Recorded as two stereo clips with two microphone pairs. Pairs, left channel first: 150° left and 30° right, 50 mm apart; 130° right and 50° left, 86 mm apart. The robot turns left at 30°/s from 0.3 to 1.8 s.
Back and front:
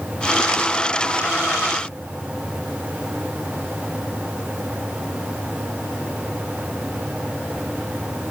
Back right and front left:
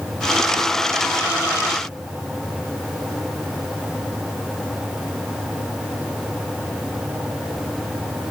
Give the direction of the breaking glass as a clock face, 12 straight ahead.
No breaking glass in this recording.